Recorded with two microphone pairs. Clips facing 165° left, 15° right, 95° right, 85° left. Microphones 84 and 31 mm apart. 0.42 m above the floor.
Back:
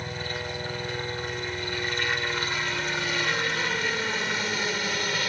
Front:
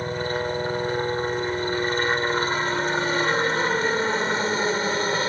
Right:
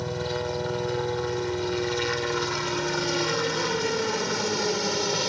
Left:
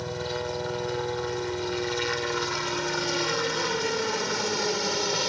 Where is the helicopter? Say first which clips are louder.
Front 8 dB, right 2 dB; 10° right; by 5.3 s 5° right.